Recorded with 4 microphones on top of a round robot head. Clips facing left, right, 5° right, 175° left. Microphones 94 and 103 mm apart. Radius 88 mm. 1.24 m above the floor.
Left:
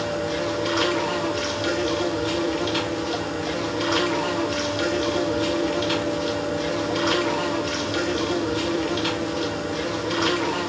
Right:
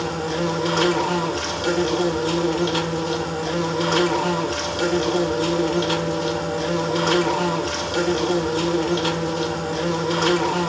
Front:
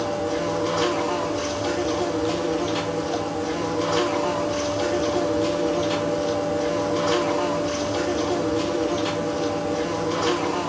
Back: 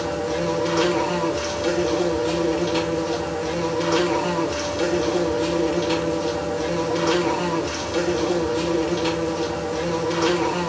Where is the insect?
145° right, 2.0 m.